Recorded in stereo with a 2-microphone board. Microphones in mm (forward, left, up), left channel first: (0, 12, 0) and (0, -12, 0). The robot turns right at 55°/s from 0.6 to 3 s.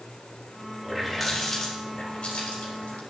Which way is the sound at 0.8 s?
15° right.